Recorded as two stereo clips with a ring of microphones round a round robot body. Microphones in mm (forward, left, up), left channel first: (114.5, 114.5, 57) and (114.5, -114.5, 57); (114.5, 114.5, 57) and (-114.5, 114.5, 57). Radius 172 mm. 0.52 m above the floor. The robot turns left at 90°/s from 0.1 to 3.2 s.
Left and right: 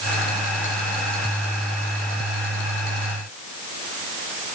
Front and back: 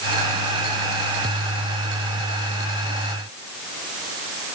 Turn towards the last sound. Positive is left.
No sound to turn to.